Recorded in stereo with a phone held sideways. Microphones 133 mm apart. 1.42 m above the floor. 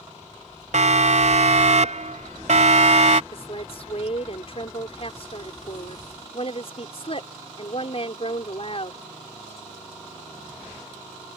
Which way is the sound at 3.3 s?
50° left (ahead or behind).